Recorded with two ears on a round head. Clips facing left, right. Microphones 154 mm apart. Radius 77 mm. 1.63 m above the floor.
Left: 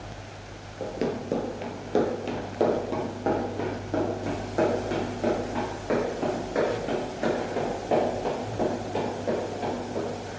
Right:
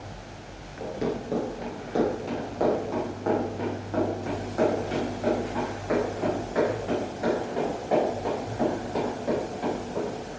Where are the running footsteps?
30° left (ahead or behind), 1.8 m.